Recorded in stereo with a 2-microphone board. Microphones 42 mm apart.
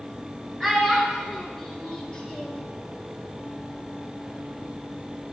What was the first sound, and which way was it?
A child speaking, centre (ahead or behind).